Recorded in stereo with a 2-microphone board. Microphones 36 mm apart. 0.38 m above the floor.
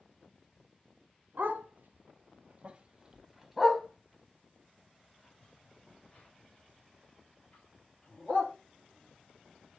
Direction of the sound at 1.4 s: 85° right.